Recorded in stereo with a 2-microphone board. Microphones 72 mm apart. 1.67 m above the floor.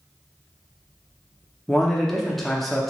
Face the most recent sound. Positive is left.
turn(degrees=5)  # may be behind; listen again after turning